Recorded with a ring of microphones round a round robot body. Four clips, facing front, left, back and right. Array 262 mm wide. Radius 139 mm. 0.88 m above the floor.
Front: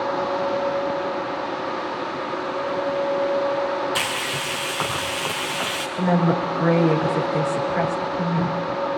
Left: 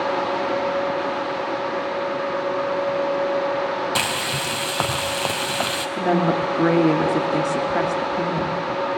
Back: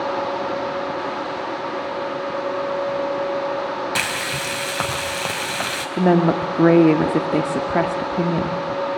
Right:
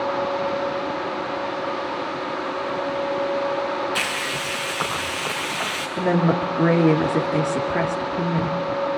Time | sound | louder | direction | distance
4.0 | frying | left 2 dB, back 1 dB | 115° left | 3.5 m
6.0 | a woman speaking | even, back 4 dB | 170° right | 2.5 m